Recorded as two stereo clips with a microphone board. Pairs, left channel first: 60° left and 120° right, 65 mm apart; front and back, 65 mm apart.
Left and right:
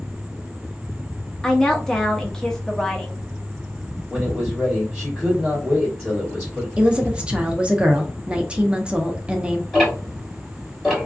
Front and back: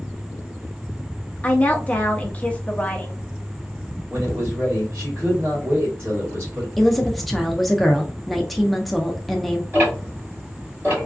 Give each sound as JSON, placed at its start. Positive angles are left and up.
{"t": 1.4, "sound": "a woman speaking", "azimuth_deg": 0, "distance_m": 0.7}
{"t": 4.1, "sound": "a man speaking", "azimuth_deg": 145, "distance_m": 1.8}
{"t": 6.8, "sound": "a woman speaking", "azimuth_deg": -85, "distance_m": 0.6}
{"t": 9.7, "sound": "ticking", "azimuth_deg": 145, "distance_m": 1.7}